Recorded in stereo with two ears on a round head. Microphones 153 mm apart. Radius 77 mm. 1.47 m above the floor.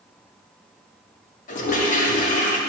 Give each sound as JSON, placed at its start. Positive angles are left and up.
{"t": 1.5, "sound": "a toilet flushing", "side_deg": 45, "distance_m": 1.4}